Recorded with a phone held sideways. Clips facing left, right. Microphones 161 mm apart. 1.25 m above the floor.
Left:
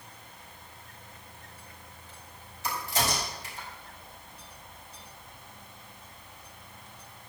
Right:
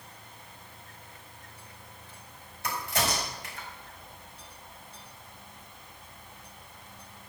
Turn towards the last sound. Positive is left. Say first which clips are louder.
# even
turn(degrees=-60)  # may be behind; listen again after turning